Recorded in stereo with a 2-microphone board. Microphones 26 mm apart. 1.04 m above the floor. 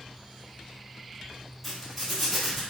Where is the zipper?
5° right (ahead or behind), 1.6 m.